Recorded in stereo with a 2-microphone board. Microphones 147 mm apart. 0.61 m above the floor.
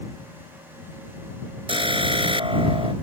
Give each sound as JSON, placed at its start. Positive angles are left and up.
{"t": 1.7, "sound": "an alarm", "side_deg": -35}